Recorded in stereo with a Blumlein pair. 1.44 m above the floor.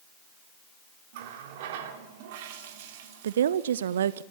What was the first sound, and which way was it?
A running tap, 50° right.